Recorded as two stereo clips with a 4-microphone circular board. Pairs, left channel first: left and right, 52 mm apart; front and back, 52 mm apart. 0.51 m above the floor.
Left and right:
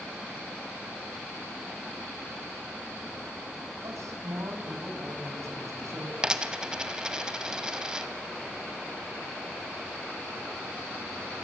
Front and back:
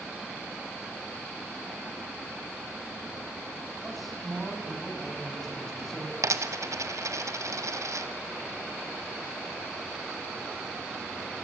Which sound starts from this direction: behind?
A dropped coin, at 6.2 s.